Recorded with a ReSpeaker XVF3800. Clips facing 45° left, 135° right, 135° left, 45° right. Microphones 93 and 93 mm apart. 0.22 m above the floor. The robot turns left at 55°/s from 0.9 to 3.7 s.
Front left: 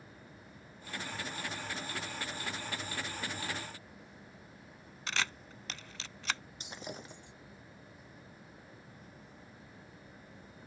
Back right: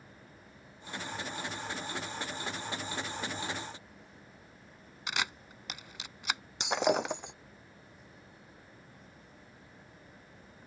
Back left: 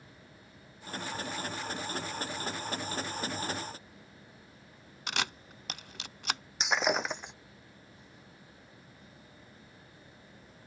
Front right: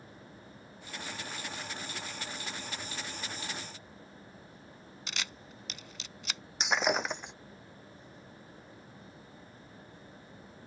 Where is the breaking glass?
135° right.